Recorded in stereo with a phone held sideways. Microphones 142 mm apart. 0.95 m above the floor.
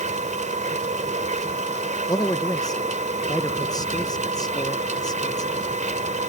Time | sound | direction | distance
0.0 | a machine running | 60° right (ahead or behind) | ?
2.1 | a man speaking | 25° left (ahead or behind) | ?